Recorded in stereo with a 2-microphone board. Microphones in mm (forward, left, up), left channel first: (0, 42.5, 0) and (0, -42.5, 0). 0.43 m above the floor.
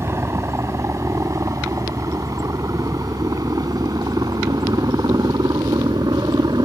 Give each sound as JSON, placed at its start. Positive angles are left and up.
{"t": 0.0, "sound": "a helicopter", "side_deg": -30}